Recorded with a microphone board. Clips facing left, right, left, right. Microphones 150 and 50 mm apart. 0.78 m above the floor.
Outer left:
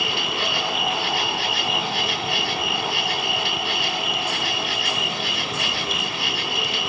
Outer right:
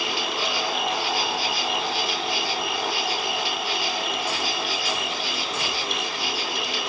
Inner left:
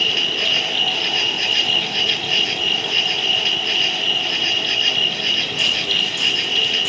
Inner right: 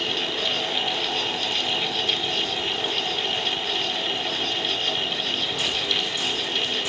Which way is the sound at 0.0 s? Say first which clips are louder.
Outer left 1 dB, inner left 6 dB; 60° left (ahead or behind).